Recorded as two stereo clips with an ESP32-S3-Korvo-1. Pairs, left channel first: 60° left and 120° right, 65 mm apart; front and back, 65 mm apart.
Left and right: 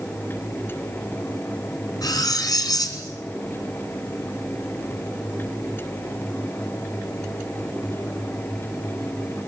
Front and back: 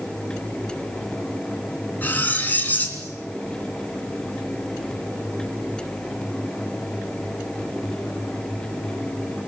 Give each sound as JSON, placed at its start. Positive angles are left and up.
{"t": 2.0, "sound": "cutlery clinking", "azimuth_deg": 60, "distance_m": 3.0}